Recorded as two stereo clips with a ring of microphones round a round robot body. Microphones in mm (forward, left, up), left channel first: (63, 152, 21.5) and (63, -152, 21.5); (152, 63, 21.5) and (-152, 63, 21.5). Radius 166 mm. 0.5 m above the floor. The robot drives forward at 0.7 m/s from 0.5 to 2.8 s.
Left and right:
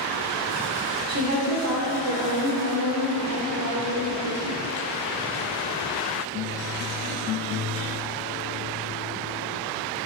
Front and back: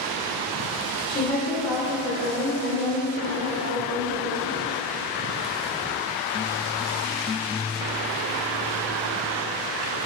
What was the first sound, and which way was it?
A woman speaking, 70° right.